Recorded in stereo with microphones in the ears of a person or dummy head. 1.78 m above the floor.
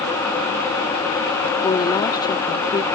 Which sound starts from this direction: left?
A woman speaking, at 1.6 s.